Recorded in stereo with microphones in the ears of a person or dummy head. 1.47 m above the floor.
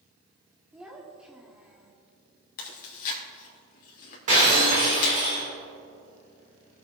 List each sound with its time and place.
0.7 s a child speaking: 5° right (ahead or behind), 1.6 m
2.6 s chewing: 55° left (ahead or behind), 2 m
4.3 s breaking glass: 40° right (ahead or behind), 3 m